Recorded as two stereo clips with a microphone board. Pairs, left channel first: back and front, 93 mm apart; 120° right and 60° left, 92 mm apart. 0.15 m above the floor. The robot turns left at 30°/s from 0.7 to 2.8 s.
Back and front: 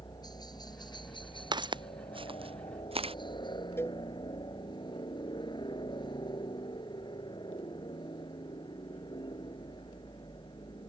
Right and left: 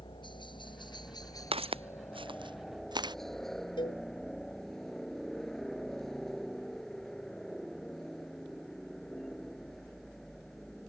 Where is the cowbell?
120° right.